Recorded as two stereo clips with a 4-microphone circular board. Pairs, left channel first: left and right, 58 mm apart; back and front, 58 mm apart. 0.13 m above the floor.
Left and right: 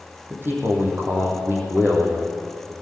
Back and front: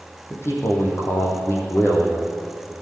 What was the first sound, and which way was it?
A man speaking, 140° right.